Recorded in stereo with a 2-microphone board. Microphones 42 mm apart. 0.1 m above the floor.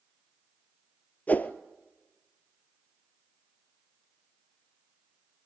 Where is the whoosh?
40° left (ahead or behind), 1.1 m.